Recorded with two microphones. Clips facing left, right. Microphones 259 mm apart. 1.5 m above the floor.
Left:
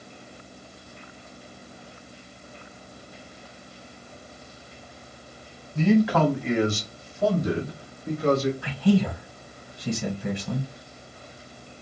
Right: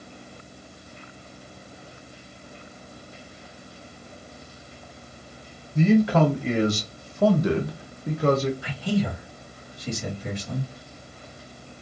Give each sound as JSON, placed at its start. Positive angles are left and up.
{"t": 5.8, "sound": "a man speaking", "side_deg": -20, "distance_m": 1.2}
{"t": 8.6, "sound": "a man speaking", "side_deg": 60, "distance_m": 1.2}